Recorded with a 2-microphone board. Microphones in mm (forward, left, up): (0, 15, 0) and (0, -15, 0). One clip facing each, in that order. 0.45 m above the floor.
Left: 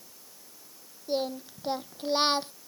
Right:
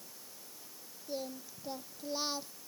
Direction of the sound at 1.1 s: 50° left (ahead or behind).